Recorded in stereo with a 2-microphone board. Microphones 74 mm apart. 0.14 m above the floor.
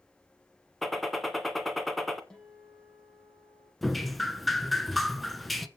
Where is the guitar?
10° left (ahead or behind), 5 m.